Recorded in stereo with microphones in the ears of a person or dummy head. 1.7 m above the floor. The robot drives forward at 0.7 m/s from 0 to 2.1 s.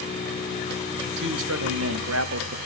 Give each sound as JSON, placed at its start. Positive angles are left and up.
{"t": 1.0, "sound": "a man speaking", "side_deg": -60, "distance_m": 1.3}